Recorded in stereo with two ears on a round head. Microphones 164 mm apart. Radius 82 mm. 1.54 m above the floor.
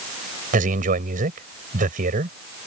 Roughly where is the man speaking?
Right.